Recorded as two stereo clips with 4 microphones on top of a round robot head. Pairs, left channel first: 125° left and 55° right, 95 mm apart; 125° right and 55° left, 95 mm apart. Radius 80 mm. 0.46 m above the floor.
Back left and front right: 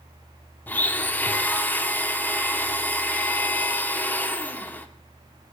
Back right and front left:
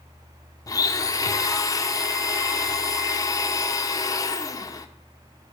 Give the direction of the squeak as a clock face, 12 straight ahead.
No squeak in this recording.